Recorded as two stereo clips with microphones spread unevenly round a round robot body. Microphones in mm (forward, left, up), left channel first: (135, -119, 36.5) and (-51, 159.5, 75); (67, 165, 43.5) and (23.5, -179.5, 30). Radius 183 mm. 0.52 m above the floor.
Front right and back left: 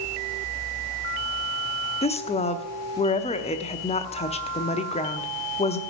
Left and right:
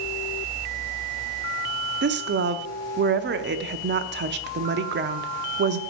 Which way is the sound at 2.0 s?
95° right.